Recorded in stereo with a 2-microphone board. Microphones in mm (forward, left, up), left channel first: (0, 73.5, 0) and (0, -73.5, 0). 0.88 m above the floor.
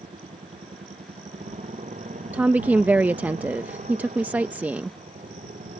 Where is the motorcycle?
50° right (ahead or behind).